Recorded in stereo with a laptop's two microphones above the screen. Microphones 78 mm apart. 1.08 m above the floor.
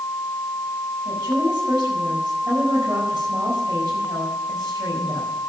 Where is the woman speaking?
65° right (ahead or behind), 5 m.